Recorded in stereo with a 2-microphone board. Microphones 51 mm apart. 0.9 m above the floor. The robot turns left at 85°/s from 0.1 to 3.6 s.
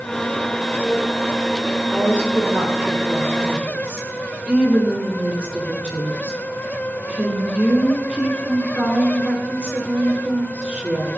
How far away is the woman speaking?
About 4 m.